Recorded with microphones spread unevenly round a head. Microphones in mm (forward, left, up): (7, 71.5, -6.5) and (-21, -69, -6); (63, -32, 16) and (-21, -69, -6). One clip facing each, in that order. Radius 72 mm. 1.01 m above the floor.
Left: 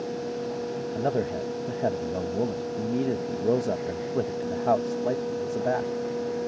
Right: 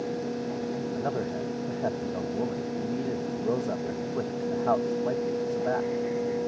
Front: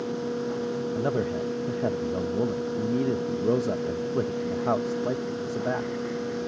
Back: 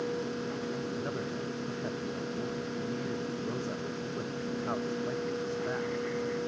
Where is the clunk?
I don't hear a clunk.